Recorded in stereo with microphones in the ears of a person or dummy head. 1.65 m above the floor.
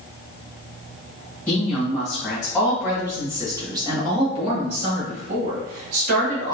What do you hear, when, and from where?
1.5 s a woman speaking: 10° left (ahead or behind), 2.0 m; by 6.5 s 65° right (ahead or behind), 2.5 m